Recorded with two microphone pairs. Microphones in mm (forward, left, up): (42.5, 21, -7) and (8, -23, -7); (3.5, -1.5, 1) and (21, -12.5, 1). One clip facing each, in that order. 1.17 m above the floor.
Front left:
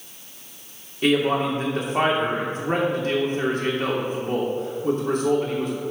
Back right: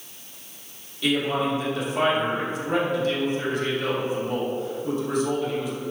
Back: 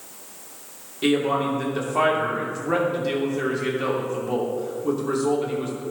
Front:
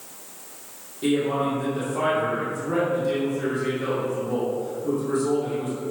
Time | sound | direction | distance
1.0 | a man speaking | 100° left | 2.5 m